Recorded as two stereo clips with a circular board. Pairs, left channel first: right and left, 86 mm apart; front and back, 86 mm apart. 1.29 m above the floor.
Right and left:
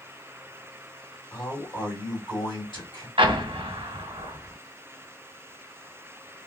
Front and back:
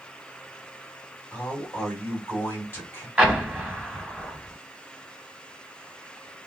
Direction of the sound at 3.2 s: 100° left.